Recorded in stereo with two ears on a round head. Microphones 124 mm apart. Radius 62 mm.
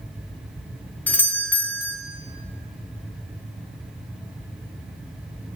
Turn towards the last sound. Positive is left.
turn(degrees=10)  # may be behind; listen again after turning